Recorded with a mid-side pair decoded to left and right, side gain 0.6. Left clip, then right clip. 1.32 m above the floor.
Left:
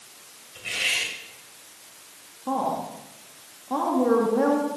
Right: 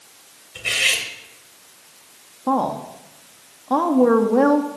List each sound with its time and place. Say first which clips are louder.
0.6 s cutlery clinking: right 6 dB; 50° right, 3.5 m
2.5 s a woman speaking: right 5 dB; 50° right, 2 m